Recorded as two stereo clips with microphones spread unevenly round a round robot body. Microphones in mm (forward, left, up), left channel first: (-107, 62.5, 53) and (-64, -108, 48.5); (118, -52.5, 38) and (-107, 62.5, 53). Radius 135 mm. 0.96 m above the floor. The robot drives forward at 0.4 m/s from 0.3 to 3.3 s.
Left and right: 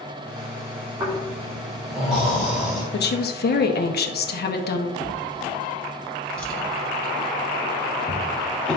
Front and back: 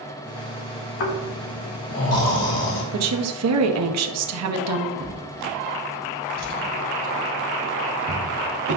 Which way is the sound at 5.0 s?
170° right.